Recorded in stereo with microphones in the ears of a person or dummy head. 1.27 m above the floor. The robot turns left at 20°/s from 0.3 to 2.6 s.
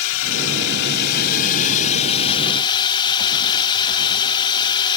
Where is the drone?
75° left; by 5.0 s 25° left.